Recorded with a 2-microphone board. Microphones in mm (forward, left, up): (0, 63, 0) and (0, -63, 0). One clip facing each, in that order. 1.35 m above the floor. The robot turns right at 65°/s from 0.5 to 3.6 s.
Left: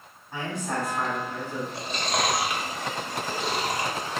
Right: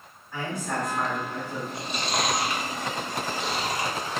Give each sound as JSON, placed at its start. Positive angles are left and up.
{"t": 0.3, "sound": "a man speaking", "azimuth_deg": 150, "distance_m": 2.0}
{"t": 1.7, "sound": "chewing", "side_deg": -25, "distance_m": 1.2}